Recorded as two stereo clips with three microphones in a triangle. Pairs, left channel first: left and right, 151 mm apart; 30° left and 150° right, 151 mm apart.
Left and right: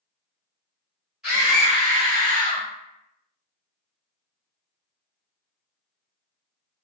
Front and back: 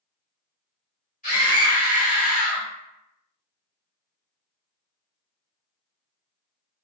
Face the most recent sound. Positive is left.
turn(degrees=15)